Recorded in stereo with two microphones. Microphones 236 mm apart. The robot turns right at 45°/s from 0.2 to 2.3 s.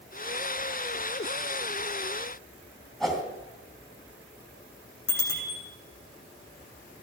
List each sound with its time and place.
3.0 s a whoosh: centre (ahead or behind), 2.5 m
5.1 s a bicycle bell: 70° left (ahead or behind), 8 m